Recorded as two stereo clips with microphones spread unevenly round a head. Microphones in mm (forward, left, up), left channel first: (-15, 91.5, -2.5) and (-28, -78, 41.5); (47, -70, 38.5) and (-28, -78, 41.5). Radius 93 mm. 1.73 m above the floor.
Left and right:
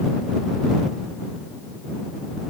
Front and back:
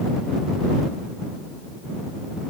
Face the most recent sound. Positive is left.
No sound to turn to.